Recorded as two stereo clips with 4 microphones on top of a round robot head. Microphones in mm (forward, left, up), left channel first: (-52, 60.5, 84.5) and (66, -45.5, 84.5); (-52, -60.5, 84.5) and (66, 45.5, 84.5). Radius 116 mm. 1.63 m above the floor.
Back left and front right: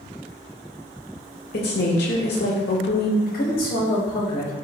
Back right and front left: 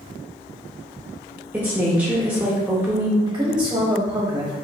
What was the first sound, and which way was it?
A woman speaking, 120° left.